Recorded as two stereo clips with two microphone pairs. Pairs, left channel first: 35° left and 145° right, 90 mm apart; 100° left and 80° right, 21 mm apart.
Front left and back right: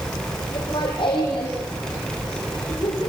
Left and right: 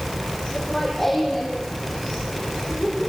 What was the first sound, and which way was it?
Laughter, 20° left.